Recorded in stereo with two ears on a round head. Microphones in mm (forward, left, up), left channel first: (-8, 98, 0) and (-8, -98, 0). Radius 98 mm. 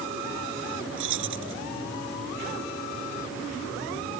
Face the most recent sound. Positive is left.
turn(degrees=-65)  # may be behind; listen again after turning